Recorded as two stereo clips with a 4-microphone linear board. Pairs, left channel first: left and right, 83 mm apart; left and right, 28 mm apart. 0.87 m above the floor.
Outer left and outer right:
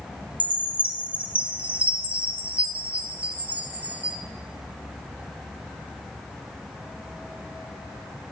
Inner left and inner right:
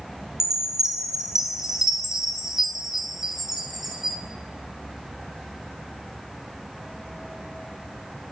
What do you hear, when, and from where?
0.4 s a chime: 15° right (ahead or behind), 1.1 m